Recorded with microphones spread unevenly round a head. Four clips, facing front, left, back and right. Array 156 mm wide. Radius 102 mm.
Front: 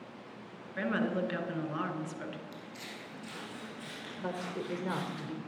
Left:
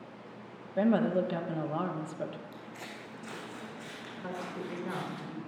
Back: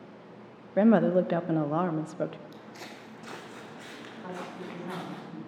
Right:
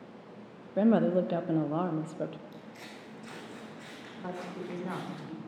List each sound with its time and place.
0.8 s a woman speaking: 175° left, 1.0 m
2.5 s footsteps: 140° left, 3 m; by 5.2 s 155° left, 6 m
4.2 s a woman speaking: 15° right, 3.5 m